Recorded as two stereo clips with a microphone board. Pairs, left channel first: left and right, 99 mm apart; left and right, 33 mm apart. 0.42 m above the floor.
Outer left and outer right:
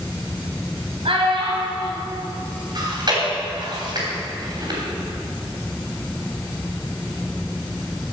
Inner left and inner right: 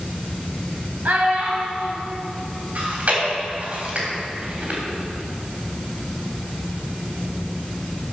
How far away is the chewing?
About 3 m.